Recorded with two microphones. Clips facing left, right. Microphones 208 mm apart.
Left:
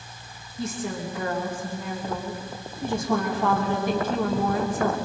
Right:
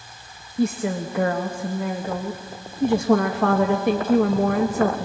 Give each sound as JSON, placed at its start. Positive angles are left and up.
{"t": 0.6, "sound": "a woman speaking", "side_deg": -65, "distance_m": 1.2}